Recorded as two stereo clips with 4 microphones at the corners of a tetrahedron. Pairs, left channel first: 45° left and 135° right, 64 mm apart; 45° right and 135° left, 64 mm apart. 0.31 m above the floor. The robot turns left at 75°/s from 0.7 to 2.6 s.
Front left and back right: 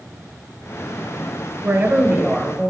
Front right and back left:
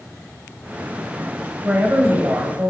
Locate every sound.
1.6 s a woman speaking: 165° right, 1.2 m; by 2.7 s 125° left, 1.2 m